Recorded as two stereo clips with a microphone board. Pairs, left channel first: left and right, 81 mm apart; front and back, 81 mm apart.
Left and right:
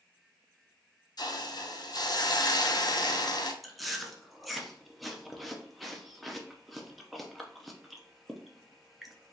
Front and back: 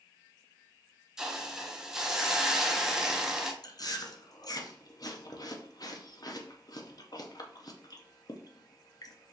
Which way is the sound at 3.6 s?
Straight ahead.